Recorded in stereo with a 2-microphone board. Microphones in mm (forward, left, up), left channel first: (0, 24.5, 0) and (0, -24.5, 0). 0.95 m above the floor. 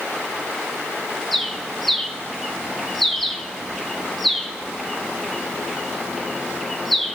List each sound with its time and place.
1.3 s a bird: centre (ahead or behind), 1.4 m